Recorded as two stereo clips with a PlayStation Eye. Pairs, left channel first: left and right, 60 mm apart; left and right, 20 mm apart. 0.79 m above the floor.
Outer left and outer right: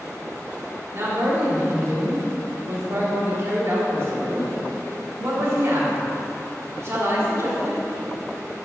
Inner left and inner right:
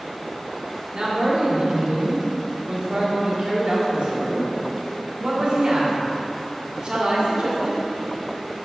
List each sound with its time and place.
0.9 s a man speaking: 50° right (ahead or behind), 2 m